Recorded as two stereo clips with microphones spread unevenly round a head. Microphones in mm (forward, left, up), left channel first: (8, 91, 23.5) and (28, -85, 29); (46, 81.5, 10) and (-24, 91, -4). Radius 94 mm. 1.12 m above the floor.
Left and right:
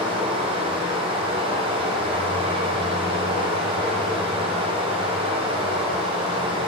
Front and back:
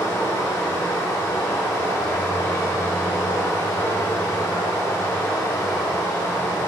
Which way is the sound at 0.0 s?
35° right.